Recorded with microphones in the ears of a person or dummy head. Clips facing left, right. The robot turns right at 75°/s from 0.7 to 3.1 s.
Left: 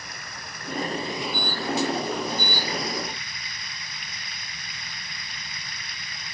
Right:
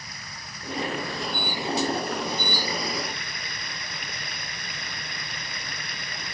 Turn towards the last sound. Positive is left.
turn(degrees=-50)